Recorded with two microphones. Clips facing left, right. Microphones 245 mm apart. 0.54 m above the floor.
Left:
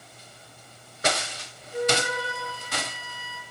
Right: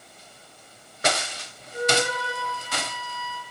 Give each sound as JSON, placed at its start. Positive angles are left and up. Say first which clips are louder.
{"t": 1.7, "sound": "a flute", "louder": "right 1 dB", "side_deg": 60, "distance_m": 6.5}